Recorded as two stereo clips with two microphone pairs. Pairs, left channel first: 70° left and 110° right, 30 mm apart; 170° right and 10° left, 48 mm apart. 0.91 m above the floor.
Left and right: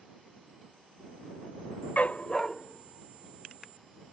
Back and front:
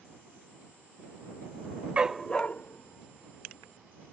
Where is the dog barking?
80° left; by 4.1 s 170° left.